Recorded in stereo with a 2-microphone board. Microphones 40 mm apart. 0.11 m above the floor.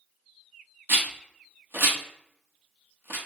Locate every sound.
0.9 s a rattle: 80° right, 1.0 m